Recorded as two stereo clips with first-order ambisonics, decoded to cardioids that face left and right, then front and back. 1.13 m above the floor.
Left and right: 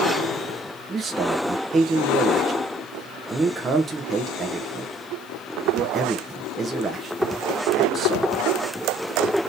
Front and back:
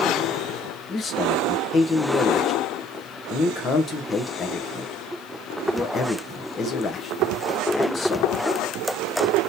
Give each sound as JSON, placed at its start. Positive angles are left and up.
{"t": 0.9, "sound": "a man speaking", "azimuth_deg": -40, "distance_m": 0.6}